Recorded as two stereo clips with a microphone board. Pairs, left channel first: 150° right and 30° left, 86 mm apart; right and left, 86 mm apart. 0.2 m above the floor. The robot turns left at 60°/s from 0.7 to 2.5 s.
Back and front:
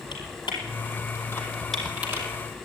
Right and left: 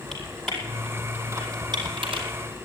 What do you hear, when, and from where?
0.1 s typing on a keyboard: 175° right, 4.5 m; by 2.3 s 90° left, 4.5 m